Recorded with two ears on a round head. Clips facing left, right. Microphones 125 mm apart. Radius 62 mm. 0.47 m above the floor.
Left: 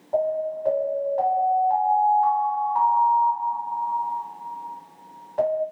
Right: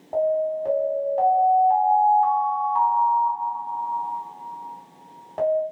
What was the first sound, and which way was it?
An alarm, 40° right (ahead or behind).